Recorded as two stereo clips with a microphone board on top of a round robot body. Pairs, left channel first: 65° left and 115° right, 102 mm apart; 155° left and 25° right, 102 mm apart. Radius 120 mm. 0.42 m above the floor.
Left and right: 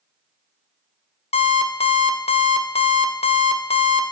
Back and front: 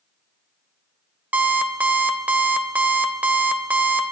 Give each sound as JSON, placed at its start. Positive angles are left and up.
{"t": 1.3, "sound": "an alarm clock", "azimuth_deg": 55, "distance_m": 1.0}